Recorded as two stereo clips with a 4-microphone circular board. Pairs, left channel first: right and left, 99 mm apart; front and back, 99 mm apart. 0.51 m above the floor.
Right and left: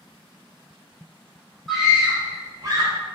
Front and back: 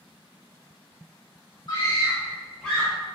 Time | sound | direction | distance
1.7 | a scream | straight ahead | 1.6 m